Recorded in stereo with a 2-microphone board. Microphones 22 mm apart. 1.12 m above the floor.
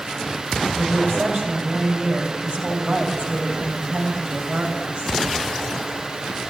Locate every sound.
0.8 s a woman speaking: 55° right (ahead or behind), 6.5 m